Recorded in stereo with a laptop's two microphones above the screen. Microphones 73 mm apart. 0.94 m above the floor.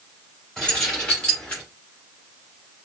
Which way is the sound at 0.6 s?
10° left (ahead or behind).